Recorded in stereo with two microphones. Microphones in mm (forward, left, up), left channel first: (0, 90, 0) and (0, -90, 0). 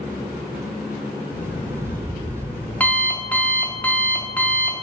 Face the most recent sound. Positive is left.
turn(degrees=10)  # may be behind; listen again after turning